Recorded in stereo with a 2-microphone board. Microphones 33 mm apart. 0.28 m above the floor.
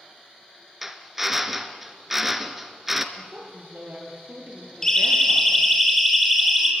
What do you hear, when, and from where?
0.8 s a drill: 5° right (ahead or behind), 1.6 m
3.1 s a woman speaking: 60° right (ahead or behind), 6.5 m
4.8 s a siren: 15° left (ahead or behind), 5 m; by 6.7 s 5° right (ahead or behind), 5 m